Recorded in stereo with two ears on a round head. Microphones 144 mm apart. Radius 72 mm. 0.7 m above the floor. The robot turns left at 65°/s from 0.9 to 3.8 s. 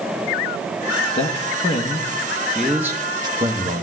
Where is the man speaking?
40° left (ahead or behind), 0.9 m; by 3.8 s 40° right (ahead or behind), 0.9 m.